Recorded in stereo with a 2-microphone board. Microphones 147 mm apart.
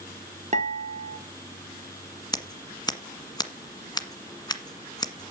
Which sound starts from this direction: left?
Scissors, at 2.3 s.